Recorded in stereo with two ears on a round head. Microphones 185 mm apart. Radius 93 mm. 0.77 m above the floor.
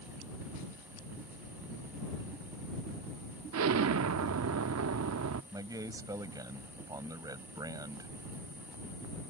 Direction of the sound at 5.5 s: 20° right (ahead or behind).